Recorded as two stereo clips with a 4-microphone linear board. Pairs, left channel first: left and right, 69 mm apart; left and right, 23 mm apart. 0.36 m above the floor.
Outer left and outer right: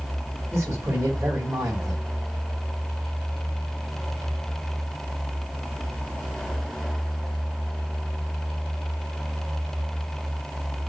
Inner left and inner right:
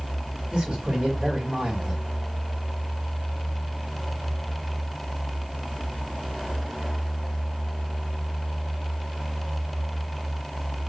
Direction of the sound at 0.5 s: 30° right (ahead or behind).